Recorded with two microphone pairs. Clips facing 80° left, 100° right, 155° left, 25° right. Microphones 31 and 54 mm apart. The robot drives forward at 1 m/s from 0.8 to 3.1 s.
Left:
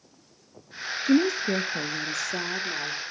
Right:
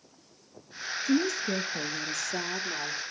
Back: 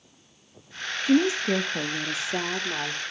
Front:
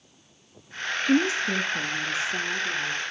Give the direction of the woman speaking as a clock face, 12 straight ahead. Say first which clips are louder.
Left 5 dB, back 2 dB; 10 o'clock.